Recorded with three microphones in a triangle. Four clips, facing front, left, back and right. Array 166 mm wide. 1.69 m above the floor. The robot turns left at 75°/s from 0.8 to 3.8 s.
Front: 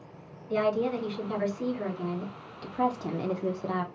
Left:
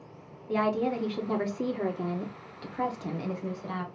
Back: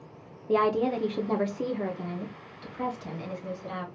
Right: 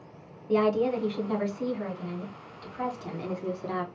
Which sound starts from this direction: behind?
A woman speaking, at 0.5 s.